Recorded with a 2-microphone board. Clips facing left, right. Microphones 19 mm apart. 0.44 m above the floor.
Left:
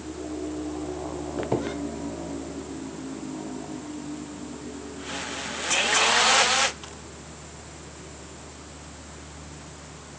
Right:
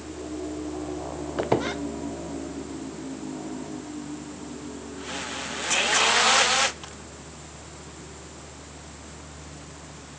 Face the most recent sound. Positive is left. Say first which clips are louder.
# right 3 dB
turn(degrees=-35)  # may be behind; listen again after turning